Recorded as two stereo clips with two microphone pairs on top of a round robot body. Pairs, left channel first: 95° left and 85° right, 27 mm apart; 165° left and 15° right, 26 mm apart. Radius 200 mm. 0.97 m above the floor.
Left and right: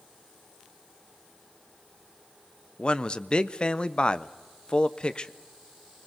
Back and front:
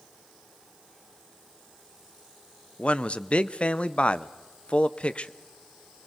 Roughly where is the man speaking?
Behind left.